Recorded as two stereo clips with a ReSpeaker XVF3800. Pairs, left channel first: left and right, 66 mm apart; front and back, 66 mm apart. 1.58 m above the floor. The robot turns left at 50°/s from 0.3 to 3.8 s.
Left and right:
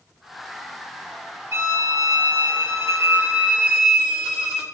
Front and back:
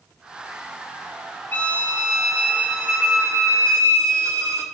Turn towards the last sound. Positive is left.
turn(degrees=-175)